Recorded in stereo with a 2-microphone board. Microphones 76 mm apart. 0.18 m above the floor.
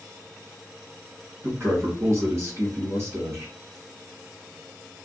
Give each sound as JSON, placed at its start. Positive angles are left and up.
{"t": 1.4, "sound": "a man speaking", "side_deg": -40, "distance_m": 1.5}